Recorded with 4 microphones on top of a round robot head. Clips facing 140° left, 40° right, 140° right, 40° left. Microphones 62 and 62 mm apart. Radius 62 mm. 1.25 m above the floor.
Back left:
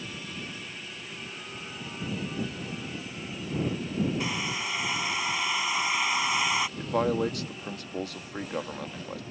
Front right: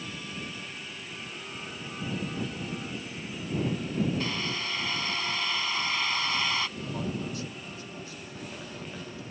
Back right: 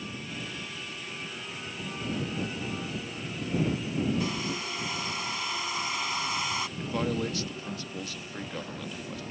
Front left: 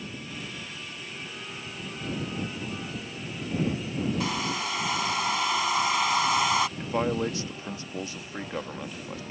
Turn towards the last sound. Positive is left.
turn(degrees=110)